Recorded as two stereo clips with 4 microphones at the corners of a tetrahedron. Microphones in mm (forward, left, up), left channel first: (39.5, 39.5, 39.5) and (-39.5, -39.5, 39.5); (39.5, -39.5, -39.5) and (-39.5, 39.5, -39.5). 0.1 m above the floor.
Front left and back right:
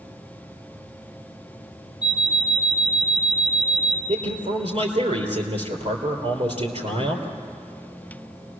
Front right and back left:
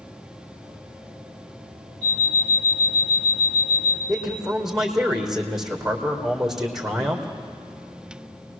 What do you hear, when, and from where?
2.0 s an alarm clock: 50° right, 4 m
4.1 s a man speaking: 140° right, 3.5 m